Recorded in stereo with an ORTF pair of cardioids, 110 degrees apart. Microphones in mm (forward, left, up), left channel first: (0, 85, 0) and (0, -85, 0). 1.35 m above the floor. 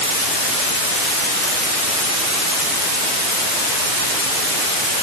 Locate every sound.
Only background noise.